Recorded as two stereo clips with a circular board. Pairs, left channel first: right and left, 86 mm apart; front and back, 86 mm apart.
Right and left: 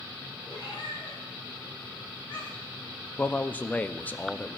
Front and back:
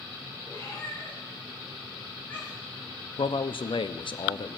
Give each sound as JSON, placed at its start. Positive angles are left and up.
{"t": 0.5, "sound": "a cat meowing", "azimuth_deg": -55, "distance_m": 6.5}
{"t": 3.2, "sound": "a man speaking", "azimuth_deg": -20, "distance_m": 0.6}